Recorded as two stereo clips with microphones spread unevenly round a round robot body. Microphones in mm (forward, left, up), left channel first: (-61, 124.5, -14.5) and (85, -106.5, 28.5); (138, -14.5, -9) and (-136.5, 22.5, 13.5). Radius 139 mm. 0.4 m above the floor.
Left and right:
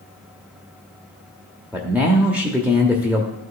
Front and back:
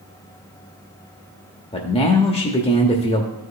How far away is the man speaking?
About 0.8 m.